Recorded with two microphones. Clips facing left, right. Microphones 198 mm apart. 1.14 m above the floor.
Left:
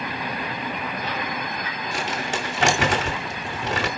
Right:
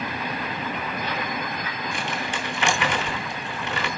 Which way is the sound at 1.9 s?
80° left.